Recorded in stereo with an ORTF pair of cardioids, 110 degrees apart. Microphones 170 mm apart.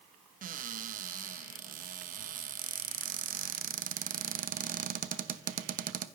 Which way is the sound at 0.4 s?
55° right.